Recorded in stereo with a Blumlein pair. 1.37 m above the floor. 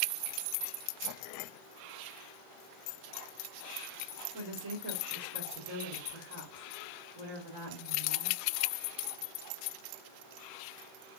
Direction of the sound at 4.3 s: 65° right.